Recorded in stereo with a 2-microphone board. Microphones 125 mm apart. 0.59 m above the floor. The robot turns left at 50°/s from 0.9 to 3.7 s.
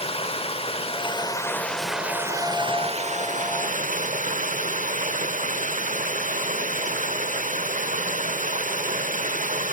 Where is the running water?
50° left, 0.8 m; by 9.7 s 90° right, 0.8 m.